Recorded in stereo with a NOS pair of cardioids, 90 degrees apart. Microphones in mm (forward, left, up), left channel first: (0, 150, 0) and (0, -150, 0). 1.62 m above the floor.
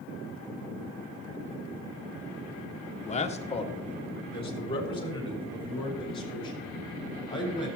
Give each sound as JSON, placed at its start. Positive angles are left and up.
{"t": 3.0, "sound": "a man speaking", "azimuth_deg": 25, "distance_m": 1.1}